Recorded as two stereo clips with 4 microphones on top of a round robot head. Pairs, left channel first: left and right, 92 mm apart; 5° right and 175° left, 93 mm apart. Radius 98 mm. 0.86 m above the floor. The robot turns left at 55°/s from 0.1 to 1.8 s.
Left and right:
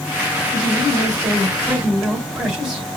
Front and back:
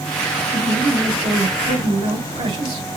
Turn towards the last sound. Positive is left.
turn(degrees=-170)